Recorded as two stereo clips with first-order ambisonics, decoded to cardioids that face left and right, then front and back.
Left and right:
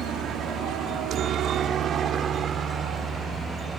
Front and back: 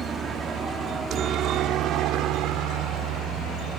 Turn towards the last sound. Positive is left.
turn(degrees=-155)